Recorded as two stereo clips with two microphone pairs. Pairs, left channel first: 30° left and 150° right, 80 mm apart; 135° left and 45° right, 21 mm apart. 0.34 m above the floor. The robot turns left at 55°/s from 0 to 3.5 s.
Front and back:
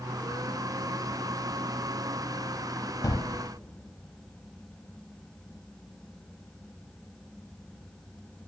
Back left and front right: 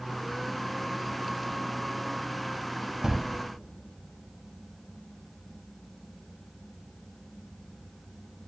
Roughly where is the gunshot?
Ahead.